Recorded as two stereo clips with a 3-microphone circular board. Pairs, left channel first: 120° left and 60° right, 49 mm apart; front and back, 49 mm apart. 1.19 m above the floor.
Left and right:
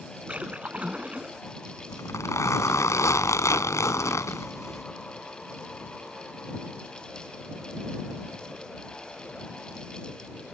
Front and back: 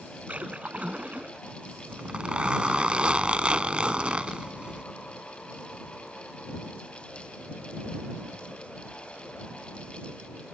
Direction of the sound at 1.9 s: 110° left.